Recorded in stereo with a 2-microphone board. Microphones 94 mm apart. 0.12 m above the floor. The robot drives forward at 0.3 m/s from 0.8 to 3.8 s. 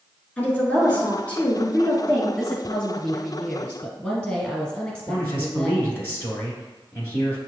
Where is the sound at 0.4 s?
20° left (ahead or behind), 1.4 m; by 2.3 s 15° left (ahead or behind), 1.6 m.